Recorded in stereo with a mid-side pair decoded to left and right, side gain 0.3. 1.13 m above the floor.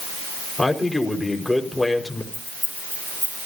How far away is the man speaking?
About 5 m.